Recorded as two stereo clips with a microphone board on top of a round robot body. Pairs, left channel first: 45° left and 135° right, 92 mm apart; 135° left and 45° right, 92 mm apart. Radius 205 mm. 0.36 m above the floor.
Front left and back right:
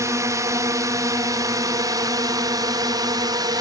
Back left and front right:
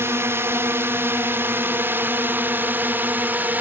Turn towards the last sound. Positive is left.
turn(degrees=-110)